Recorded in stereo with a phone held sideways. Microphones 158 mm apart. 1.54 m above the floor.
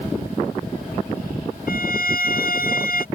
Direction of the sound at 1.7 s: 70° left (ahead or behind).